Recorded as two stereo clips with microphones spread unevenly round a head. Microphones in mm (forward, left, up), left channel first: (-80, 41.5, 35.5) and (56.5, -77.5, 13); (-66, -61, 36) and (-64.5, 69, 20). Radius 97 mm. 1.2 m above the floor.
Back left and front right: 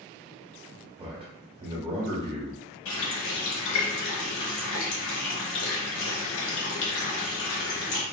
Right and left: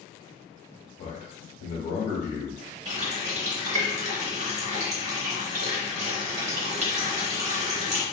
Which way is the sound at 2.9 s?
125° left.